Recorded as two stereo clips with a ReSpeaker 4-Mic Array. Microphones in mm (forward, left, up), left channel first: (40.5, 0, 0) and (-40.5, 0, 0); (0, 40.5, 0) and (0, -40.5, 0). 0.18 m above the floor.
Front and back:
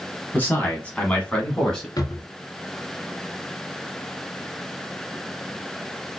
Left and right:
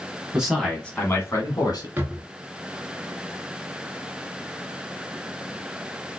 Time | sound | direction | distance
0.3 | a man speaking | 30° right | 1.1 m
2.0 | a drawer | 30° right | 0.7 m